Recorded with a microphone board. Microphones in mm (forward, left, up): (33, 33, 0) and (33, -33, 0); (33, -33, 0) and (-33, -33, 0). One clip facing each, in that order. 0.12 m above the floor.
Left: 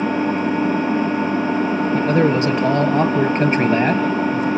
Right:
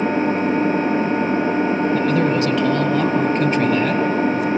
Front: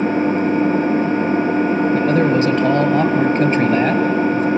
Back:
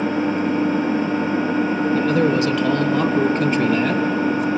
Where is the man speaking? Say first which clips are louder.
Left 1 dB, front 1 dB; 35° left, 1.8 m.